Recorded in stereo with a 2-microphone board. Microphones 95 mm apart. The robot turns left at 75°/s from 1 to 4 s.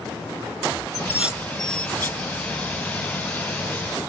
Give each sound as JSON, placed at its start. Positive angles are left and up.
{"t": 0.9, "sound": "dishes clattering", "side_deg": -25}